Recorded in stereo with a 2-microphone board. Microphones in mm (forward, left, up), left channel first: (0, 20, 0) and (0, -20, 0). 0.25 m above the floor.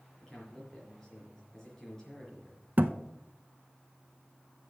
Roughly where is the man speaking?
Centre.